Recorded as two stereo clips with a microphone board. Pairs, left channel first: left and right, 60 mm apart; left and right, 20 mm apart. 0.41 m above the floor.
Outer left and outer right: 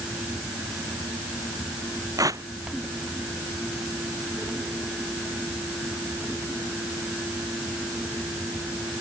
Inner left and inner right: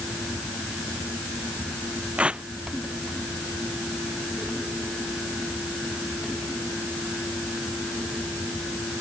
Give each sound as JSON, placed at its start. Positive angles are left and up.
{"t": 2.2, "sound": "tearing paper", "side_deg": -75}